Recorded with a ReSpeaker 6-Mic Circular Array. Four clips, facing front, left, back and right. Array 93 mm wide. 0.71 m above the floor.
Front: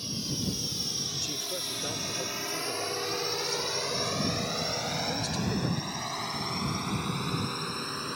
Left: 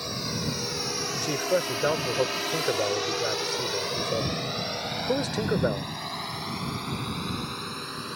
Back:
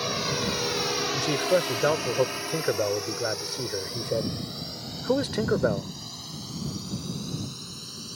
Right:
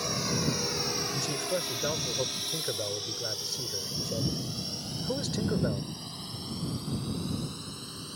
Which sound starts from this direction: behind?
A drone, at 0.0 s.